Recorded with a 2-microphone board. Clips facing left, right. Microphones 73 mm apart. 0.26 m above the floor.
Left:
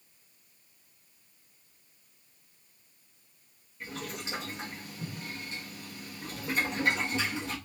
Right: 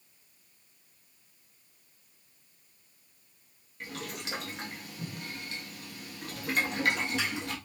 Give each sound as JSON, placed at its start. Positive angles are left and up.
{"t": 3.8, "sound": "boiling", "side_deg": -75, "distance_m": 1.1}